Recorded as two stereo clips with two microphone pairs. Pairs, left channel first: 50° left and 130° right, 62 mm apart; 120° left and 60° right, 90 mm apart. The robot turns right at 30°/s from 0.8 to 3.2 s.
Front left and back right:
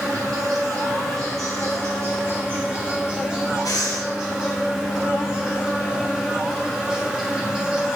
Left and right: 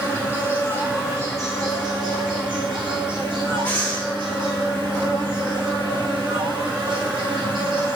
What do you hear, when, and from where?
0.0 s an insect: 125° right, 1.4 m; by 8.0 s 55° right, 1.4 m
3.6 s breathing: 50° left, 1.2 m